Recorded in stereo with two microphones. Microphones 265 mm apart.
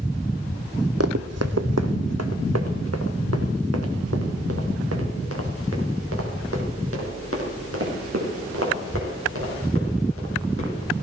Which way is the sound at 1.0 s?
65° right (ahead or behind).